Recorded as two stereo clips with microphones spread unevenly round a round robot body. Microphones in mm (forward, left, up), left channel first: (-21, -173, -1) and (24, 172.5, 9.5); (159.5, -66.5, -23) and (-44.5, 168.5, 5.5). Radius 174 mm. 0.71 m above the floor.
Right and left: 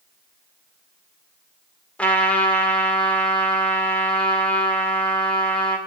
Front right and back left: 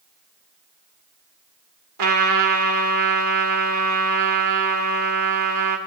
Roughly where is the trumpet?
Behind.